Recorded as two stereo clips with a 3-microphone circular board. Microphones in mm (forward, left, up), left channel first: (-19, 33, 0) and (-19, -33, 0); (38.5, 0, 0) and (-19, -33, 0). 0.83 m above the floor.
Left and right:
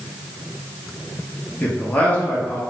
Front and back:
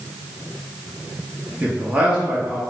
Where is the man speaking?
150° left, 1.0 m.